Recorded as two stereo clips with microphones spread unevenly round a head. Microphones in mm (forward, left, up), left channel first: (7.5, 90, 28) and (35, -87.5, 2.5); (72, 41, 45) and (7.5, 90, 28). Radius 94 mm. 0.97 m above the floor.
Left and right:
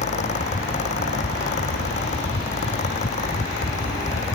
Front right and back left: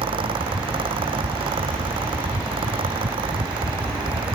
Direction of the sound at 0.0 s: 155° left.